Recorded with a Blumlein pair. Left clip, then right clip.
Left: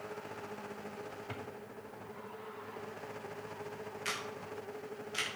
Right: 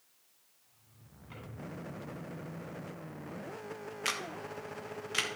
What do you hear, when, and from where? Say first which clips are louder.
1.3 s a drawer: left 3 dB; 45° left, 3 m
4.0 s a camera shutter: right 4 dB; 70° right, 1.5 m